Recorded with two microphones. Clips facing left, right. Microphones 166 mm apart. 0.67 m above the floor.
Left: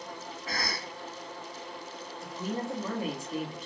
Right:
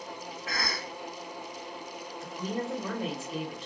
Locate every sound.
0.5 s a cough: 30° left (ahead or behind), 1.3 m
2.2 s a woman speaking: 5° left (ahead or behind), 0.9 m